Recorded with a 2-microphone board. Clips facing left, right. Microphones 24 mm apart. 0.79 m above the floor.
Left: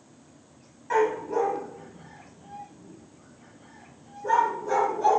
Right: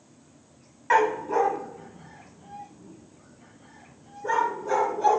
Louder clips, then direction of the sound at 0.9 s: Right 2 dB; 55° right (ahead or behind).